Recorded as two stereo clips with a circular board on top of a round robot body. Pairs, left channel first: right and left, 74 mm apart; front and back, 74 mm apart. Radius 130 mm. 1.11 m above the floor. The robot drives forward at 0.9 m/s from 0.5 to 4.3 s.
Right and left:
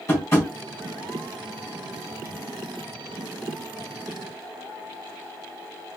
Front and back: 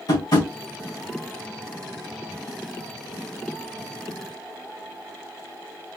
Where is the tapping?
35° right, 3 m.